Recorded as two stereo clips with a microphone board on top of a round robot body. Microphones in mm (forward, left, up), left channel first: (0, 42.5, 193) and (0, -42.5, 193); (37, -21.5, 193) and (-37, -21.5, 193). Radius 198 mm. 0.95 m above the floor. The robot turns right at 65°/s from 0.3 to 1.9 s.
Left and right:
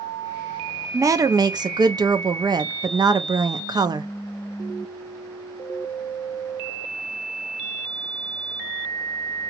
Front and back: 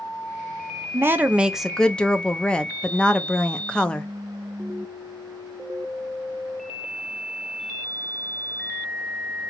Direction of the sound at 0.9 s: 135° right.